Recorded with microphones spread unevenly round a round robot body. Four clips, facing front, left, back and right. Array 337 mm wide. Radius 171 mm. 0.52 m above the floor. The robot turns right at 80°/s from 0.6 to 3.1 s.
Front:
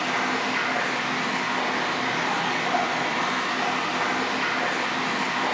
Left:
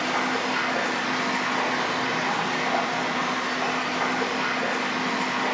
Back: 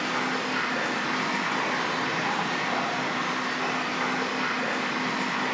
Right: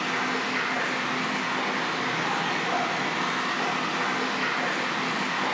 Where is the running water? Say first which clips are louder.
Left 3 dB, front 3 dB; 75° left, 1.3 m; by 5.5 s 85° right, 1.3 m.